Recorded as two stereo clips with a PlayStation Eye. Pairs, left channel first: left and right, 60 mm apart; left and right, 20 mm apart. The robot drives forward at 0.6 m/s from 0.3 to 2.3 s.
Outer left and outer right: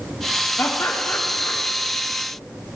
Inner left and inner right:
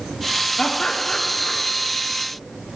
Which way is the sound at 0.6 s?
35° left (ahead or behind).